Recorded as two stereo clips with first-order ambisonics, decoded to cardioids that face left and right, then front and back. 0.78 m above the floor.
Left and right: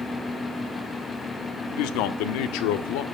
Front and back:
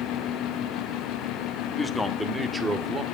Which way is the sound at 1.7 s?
80° left.